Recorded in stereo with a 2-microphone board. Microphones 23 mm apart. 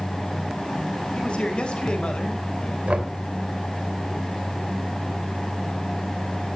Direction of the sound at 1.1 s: 55° left (ahead or behind).